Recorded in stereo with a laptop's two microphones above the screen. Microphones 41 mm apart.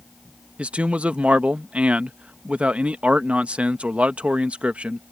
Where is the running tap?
I don't hear a running tap.